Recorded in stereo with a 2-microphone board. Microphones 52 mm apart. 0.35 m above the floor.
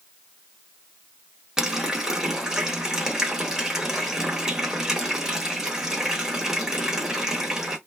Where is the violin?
I don't hear a violin.